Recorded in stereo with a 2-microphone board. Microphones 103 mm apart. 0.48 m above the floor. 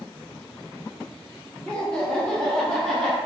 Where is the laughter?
10° left (ahead or behind), 0.8 m; by 3.2 s centre (ahead or behind), 1.5 m.